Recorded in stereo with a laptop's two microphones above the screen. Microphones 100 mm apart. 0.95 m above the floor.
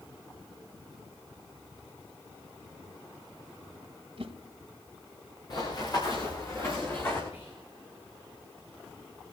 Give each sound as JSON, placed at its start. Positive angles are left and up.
{"t": 4.2, "sound": "a whoosh", "side_deg": -75, "distance_m": 1.8}
{"t": 5.5, "sound": "running footsteps", "side_deg": 45, "distance_m": 5.5}
{"t": 7.3, "sound": "whispering", "side_deg": 85, "distance_m": 5.5}